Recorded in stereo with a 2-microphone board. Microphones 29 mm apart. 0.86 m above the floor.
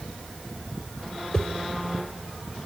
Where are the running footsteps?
I don't hear running footsteps.